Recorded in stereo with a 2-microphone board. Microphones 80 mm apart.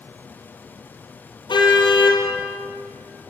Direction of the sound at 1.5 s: 70° left (ahead or behind).